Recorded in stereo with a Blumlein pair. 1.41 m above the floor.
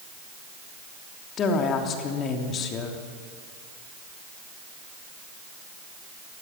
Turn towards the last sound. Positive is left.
turn(degrees=30)